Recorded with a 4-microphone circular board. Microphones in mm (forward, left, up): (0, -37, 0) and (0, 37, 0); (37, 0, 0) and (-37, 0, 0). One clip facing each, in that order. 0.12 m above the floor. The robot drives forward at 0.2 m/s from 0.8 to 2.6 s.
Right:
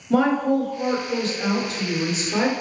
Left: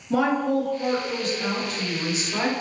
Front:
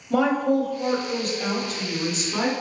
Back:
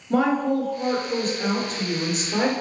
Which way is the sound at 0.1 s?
140° right.